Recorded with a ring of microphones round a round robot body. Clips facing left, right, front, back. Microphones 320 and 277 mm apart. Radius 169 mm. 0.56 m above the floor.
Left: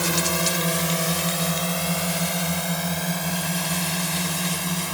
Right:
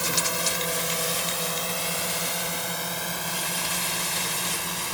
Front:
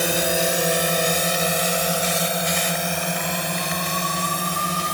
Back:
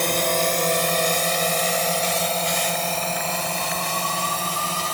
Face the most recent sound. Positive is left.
turn(degrees=75)